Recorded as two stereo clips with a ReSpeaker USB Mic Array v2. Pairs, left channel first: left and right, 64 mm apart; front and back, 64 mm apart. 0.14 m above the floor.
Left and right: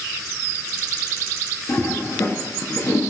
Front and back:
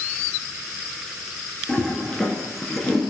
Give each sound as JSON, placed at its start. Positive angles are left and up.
{"t": 1.7, "sound": "a toilet flushing", "azimuth_deg": 75, "distance_m": 0.6}